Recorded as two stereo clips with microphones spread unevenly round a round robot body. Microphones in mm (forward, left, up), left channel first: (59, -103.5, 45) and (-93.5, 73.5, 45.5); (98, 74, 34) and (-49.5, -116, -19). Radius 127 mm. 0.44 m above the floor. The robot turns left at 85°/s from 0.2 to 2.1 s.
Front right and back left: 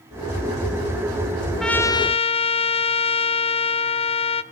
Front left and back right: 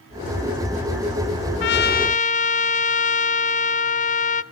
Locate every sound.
1.6 s a trumpet: 40° left, 0.9 m; by 4.4 s 5° right, 0.9 m